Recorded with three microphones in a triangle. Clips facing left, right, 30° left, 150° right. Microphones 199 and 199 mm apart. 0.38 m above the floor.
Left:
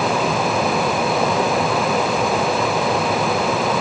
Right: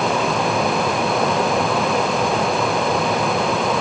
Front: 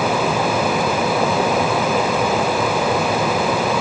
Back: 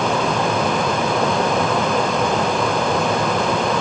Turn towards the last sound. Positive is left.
No sound to turn to.